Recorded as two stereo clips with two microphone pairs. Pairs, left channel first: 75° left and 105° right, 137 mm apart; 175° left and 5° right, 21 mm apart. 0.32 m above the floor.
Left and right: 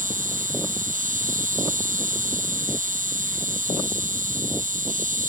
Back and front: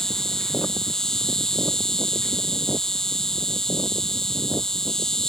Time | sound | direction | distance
0.0 | an insect | 120° right | ?